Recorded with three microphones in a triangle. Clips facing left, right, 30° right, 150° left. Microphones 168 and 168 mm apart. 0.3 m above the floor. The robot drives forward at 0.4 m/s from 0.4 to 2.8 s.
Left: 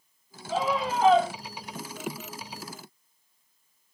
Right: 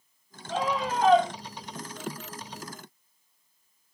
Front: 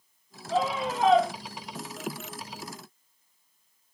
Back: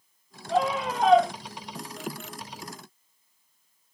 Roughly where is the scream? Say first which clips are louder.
Left 1 dB, back 2 dB; behind.